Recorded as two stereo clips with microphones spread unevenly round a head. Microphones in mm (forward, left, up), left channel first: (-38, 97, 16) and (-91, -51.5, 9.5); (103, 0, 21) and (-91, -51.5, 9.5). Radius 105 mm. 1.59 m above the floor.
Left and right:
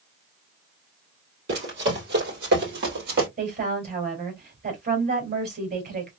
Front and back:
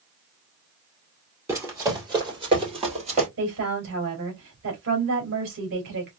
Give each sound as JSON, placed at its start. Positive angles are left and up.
{"t": 1.5, "sound": "running footsteps", "azimuth_deg": -85, "distance_m": 3.0}
{"t": 3.4, "sound": "a woman speaking", "azimuth_deg": -135, "distance_m": 2.5}